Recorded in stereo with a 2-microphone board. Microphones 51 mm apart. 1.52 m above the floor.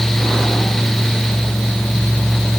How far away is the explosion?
I don't hear an explosion.